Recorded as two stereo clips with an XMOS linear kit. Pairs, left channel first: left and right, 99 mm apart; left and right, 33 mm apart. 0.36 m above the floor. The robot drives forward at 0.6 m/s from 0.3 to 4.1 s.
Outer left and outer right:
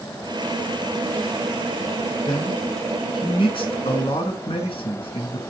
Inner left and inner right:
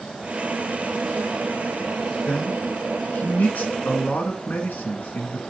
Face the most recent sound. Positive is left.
turn(degrees=70)  # may be behind; listen again after turning